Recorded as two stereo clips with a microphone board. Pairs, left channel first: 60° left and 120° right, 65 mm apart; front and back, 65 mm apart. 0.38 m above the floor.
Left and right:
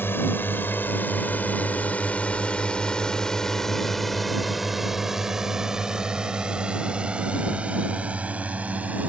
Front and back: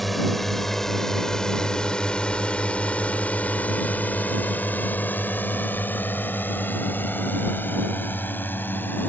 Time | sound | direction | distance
0.0 | a drone | 85° left | ?